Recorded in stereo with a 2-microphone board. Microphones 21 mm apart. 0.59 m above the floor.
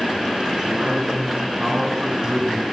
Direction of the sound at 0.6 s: 40° right (ahead or behind).